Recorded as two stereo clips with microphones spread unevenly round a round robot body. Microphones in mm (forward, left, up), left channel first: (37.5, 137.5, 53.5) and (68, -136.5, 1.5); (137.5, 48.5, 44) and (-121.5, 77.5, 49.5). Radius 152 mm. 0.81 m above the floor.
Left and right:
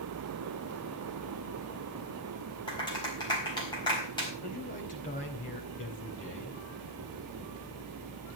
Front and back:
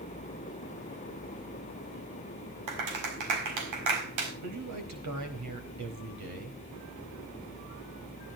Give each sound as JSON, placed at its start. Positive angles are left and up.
{"t": 2.7, "sound": "a clap", "azimuth_deg": 175, "distance_m": 4.5}
{"t": 4.4, "sound": "a man speaking", "azimuth_deg": 165, "distance_m": 4.5}